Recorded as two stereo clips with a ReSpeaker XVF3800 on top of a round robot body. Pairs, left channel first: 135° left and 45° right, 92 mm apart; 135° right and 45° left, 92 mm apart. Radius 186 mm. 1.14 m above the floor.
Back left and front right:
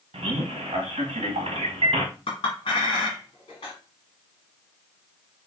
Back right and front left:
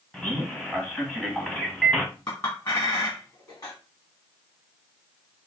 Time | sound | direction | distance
0.1 | a man speaking | 50° right | 1.1 m
2.3 | a clink | 170° left | 1.0 m